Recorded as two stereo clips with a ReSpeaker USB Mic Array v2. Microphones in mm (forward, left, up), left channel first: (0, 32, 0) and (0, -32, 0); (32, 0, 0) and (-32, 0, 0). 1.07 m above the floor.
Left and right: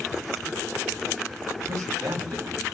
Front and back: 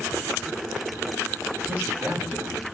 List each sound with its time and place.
1.7 s a man speaking: 115° right, 1.4 m